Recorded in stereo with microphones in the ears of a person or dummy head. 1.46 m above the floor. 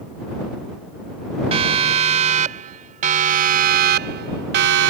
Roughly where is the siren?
Right.